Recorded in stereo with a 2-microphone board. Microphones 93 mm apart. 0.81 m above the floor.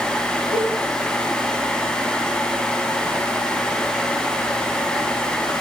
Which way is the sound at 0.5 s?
65° right (ahead or behind).